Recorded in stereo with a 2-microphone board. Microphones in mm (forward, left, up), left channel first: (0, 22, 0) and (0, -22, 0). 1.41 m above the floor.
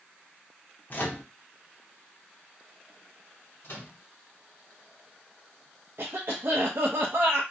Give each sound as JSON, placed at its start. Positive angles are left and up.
{"t": 0.9, "sound": "a microwave", "side_deg": 40, "distance_m": 0.7}
{"t": 3.6, "sound": "a microwave", "side_deg": 60, "distance_m": 1.3}
{"t": 6.0, "sound": "a cough", "side_deg": -60, "distance_m": 0.5}